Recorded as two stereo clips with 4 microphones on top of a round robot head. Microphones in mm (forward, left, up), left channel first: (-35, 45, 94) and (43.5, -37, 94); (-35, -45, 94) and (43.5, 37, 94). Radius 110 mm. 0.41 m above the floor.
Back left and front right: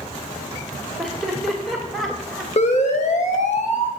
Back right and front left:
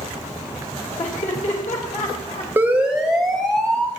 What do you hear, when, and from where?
1.0 s laughter: 140° right, 2.5 m
2.6 s a siren: 120° left, 2 m; by 3.9 s 145° left, 3.5 m